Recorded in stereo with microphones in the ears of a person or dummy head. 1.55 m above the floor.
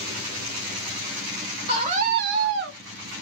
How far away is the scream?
About 1.1 m.